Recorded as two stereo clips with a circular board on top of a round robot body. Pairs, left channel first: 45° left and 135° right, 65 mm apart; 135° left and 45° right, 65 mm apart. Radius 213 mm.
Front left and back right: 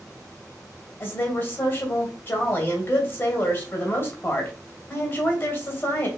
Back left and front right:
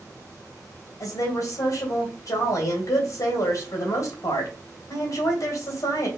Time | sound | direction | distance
1.0 | a woman speaking | 95° left | 2.5 m